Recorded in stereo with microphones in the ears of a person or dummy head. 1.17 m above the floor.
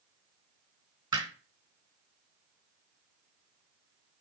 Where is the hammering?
25° right (ahead or behind), 3.5 m.